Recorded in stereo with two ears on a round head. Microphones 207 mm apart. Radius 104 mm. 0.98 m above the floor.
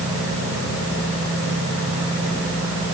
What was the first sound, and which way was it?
Only background noise.